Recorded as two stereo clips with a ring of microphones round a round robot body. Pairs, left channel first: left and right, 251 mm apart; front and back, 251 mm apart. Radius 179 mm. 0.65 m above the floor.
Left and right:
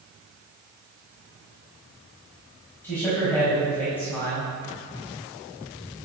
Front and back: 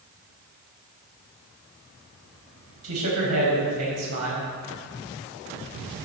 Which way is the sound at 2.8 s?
175° left.